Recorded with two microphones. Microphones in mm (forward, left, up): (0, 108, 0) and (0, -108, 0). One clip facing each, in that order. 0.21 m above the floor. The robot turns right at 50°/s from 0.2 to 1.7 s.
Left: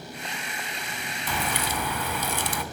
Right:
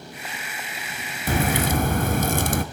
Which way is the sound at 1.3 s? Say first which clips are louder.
Right 9 dB; 45° right (ahead or behind).